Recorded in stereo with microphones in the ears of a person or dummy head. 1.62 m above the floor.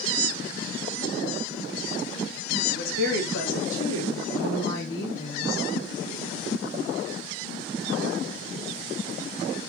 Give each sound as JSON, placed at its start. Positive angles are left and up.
{"t": 2.7, "sound": "a woman speaking", "side_deg": 85, "distance_m": 3.0}